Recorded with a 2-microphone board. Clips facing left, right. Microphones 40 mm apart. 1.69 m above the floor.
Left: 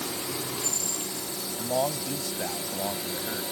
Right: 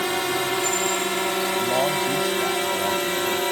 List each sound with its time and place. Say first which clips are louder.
0.0 s a drone: right 10 dB; 80° right; by 3.5 s 65° right (ahead or behind)
1.6 s a man speaking: right 3 dB; 10° right (ahead or behind)